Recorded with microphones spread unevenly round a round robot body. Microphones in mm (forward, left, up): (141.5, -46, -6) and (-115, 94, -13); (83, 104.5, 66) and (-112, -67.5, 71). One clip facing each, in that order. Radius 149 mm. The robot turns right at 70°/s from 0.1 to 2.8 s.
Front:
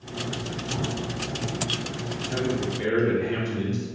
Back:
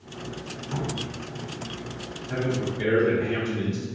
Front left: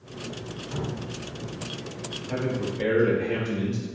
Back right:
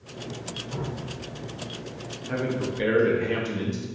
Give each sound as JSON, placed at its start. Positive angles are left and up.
{"t": 0.7, "sound": "dripping", "azimuth_deg": 150, "distance_m": 1.0}
{"t": 2.3, "sound": "a man speaking", "azimuth_deg": -160, "distance_m": 0.6}